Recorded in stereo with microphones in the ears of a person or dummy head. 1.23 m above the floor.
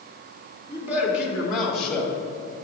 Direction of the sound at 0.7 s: 20° right (ahead or behind).